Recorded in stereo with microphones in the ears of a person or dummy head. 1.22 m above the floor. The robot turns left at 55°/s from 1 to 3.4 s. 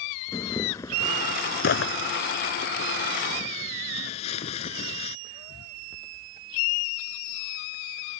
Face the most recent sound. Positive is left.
turn(degrees=35)  # may be behind; listen again after turning